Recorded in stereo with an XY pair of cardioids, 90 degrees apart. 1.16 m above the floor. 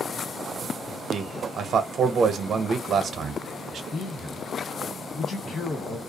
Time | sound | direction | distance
1.1 | a man speaking | 65° right | 0.6 m
3.9 | a man speaking | 65° left | 1.3 m